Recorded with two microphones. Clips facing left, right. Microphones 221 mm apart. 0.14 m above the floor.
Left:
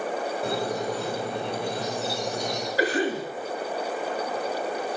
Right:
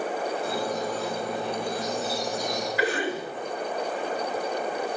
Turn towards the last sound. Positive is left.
turn(degrees=35)  # may be behind; listen again after turning